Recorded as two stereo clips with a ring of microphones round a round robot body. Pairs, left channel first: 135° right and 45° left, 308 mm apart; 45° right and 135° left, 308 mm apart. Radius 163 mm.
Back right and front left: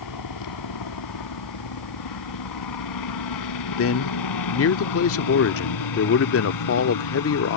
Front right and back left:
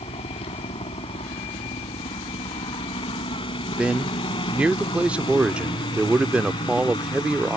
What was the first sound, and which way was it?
A helicopter, 120° right.